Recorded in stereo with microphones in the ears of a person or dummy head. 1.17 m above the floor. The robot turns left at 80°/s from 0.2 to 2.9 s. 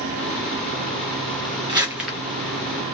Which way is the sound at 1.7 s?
20° right (ahead or behind).